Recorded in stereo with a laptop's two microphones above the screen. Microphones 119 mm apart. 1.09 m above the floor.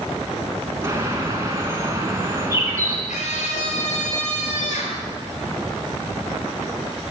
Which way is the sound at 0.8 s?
25° right (ahead or behind).